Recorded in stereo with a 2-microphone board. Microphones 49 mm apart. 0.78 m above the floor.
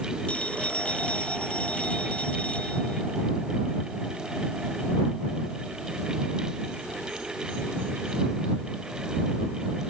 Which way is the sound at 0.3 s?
25° left (ahead or behind).